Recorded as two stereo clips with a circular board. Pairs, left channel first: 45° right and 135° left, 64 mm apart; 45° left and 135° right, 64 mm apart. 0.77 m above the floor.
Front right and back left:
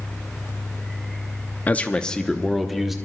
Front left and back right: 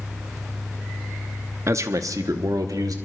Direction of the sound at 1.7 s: 105° right.